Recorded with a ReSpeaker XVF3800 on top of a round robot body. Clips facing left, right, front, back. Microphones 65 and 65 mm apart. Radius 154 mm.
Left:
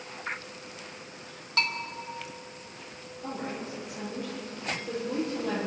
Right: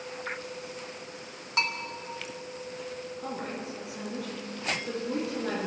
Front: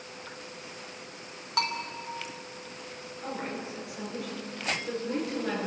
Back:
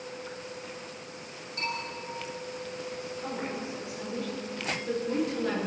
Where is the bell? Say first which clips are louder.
Even, front 4 dB; 15° right, 1.8 m.